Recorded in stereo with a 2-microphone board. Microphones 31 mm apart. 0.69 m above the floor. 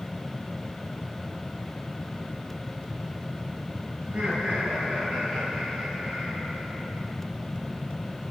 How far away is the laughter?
About 4 m.